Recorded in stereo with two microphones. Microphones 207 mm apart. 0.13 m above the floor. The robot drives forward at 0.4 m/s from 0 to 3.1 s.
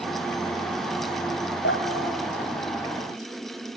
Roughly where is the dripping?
Left.